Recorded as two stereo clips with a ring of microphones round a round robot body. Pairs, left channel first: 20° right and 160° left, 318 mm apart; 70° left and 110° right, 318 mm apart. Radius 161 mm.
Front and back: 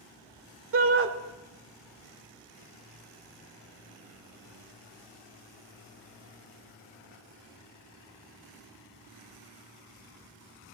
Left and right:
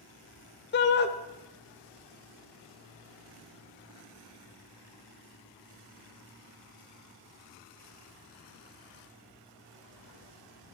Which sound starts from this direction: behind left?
A shout, at 0.7 s.